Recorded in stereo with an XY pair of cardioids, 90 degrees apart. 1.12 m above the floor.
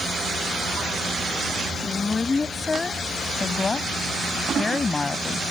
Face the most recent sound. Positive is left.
turn(degrees=35)